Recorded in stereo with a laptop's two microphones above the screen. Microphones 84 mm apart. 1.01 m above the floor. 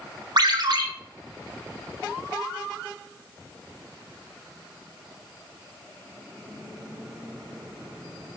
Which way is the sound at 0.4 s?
55° right (ahead or behind).